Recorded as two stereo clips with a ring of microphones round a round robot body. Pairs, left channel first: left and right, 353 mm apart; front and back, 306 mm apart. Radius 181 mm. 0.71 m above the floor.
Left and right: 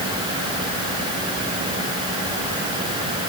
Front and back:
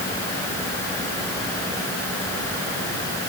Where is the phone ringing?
I don't hear a phone ringing.